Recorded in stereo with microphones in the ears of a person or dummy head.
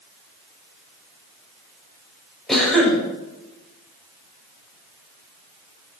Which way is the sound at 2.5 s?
Centre (ahead or behind).